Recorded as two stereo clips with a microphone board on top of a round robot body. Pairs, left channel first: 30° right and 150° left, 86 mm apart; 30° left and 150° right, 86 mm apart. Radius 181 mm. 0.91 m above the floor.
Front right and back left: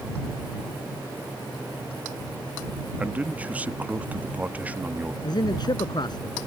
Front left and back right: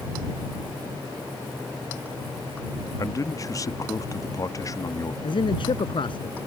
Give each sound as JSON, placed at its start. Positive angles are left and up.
{"t": 3.0, "sound": "a man speaking", "azimuth_deg": 75}
{"t": 5.2, "sound": "a man speaking", "azimuth_deg": 10}